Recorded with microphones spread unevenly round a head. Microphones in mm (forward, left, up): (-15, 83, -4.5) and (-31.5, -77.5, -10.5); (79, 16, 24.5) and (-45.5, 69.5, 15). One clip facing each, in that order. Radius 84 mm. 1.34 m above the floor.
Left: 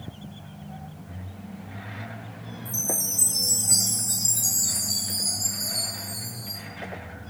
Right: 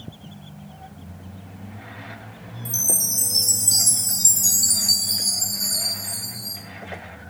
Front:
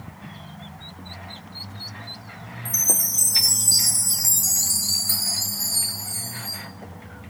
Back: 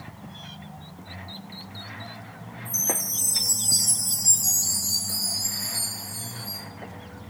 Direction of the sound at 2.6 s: 70° right.